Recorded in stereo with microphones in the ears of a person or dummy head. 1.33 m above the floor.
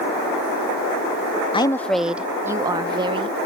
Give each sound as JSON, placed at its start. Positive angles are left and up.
{"t": 1.5, "sound": "a woman speaking", "side_deg": 25}